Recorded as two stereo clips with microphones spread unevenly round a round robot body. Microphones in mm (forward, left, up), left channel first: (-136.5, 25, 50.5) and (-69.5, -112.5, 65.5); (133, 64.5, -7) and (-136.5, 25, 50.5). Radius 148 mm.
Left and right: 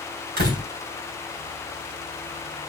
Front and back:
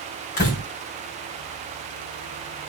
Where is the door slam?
50° right, 3 m.